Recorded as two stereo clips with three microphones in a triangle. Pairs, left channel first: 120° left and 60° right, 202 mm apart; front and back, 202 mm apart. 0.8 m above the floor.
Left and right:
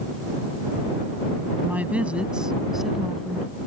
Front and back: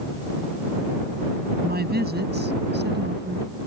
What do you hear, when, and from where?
1.6 s a woman speaking: 140° right; by 3.7 s 155° right